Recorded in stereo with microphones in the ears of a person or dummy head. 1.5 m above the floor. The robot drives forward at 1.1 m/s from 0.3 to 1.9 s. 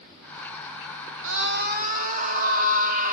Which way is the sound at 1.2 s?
75° right (ahead or behind).